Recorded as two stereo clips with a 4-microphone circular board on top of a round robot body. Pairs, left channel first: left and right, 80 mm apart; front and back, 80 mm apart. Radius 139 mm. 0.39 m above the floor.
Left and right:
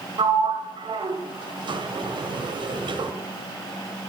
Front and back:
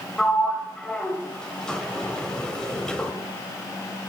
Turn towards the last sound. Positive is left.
turn(degrees=-80)